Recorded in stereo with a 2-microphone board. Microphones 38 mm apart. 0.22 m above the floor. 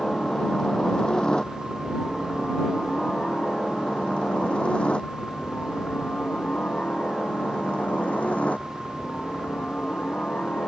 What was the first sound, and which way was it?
A helicopter, 15° left (ahead or behind).